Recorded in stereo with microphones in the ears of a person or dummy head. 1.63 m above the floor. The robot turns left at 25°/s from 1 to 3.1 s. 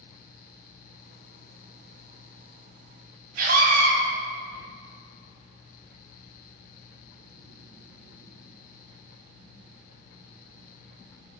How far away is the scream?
About 2 m.